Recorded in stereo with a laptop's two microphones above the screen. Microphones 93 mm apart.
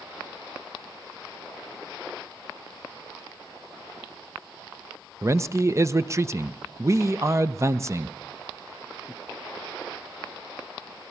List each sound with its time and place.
5.2 s a man speaking: 30° right (ahead or behind), 0.8 m